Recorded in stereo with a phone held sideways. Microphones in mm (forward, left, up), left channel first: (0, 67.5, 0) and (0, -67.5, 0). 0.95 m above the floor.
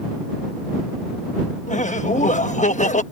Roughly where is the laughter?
Left.